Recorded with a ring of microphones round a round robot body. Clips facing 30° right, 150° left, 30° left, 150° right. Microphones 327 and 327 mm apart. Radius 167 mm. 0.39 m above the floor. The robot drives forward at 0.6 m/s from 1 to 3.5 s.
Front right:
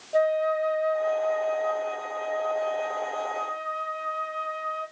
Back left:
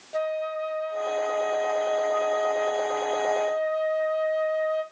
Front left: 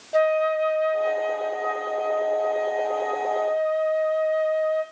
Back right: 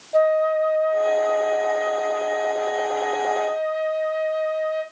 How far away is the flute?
About 0.7 m.